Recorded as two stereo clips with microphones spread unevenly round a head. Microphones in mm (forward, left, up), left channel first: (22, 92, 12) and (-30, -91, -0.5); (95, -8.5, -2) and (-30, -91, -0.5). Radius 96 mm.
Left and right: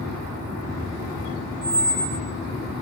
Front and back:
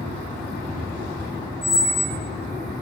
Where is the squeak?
55° right, 1.7 m.